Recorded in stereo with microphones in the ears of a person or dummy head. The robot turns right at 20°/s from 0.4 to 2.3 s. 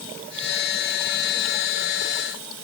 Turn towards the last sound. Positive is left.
No sound to turn to.